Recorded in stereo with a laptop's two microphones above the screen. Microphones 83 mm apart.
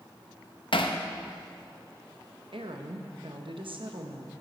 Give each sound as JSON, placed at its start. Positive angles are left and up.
{"t": 0.7, "sound": "hammering", "side_deg": 70, "distance_m": 0.7}
{"t": 2.5, "sound": "a woman speaking", "side_deg": -75, "distance_m": 0.9}